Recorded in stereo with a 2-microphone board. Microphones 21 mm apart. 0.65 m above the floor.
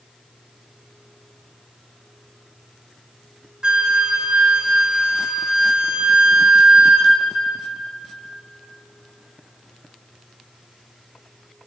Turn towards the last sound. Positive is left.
turn(degrees=-45)  # may be behind; listen again after turning